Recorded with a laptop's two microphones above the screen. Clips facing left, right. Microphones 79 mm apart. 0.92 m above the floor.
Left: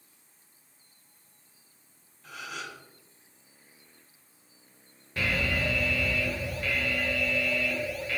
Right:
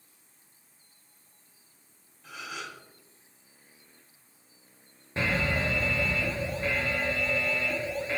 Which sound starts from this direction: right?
An alarm, at 5.2 s.